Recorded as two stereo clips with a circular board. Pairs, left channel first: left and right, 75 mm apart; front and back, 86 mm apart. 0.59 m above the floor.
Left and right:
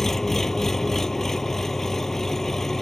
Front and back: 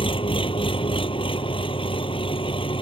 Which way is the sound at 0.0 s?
5° left.